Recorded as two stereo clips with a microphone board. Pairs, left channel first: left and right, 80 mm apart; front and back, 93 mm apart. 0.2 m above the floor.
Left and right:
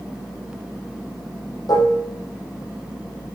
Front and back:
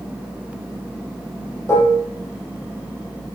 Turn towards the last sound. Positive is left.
turn(degrees=60)